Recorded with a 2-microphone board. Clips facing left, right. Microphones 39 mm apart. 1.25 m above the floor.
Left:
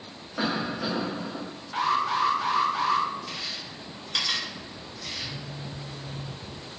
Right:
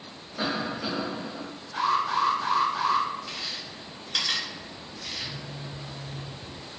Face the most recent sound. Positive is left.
turn(degrees=-55)  # may be behind; listen again after turning